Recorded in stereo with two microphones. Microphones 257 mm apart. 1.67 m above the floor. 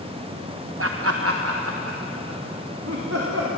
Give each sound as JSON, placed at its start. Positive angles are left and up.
{"t": 0.8, "sound": "laughter", "side_deg": -55, "distance_m": 0.8}